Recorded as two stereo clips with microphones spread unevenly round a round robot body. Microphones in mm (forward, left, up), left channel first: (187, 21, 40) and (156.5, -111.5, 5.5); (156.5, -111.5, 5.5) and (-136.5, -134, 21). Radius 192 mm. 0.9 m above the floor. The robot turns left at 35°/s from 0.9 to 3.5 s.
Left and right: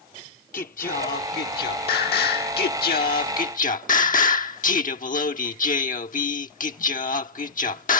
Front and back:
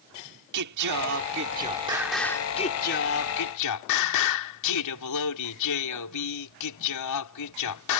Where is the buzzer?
No buzzer in this recording.